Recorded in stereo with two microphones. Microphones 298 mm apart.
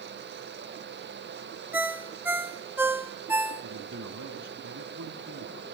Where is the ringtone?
5° right (ahead or behind), 0.9 m.